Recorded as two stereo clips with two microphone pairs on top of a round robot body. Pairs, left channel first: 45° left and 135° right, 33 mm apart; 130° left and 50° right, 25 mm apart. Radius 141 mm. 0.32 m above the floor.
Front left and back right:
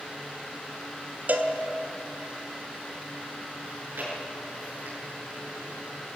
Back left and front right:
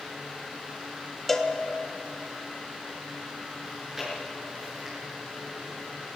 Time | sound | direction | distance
1.3 | a cowbell | 155° right | 2 m
3.6 | chewing | 125° right | 7 m